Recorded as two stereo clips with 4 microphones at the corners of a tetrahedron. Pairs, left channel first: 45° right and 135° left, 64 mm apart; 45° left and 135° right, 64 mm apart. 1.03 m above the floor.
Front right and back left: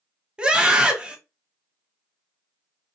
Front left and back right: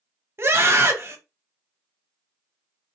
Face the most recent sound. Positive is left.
turn(degrees=-160)